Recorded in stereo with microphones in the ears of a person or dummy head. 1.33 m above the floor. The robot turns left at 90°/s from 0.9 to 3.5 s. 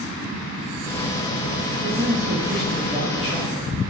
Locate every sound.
1.8 s a man speaking: 75° right, 2.5 m; by 3.9 s 130° left, 2.5 m